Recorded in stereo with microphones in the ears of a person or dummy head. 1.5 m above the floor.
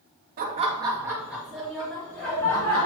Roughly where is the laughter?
Right.